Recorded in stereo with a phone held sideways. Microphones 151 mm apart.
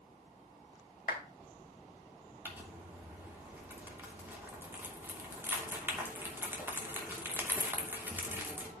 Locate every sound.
1.1 s a clap: 75° left (ahead or behind), 3 m
2.5 s crumpling: 15° right (ahead or behind), 3 m